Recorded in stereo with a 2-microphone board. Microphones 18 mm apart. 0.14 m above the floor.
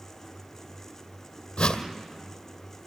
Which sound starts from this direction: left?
A whoosh, at 1.6 s.